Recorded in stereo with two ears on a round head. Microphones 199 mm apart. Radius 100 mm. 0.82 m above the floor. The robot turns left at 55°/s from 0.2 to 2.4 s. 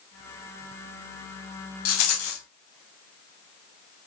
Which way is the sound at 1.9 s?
90° left.